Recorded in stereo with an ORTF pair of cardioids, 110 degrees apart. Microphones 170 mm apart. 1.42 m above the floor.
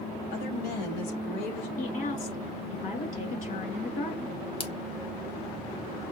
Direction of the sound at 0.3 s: 65° left.